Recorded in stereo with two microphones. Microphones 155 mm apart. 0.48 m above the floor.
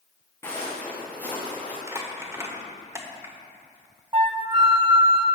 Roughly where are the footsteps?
Centre.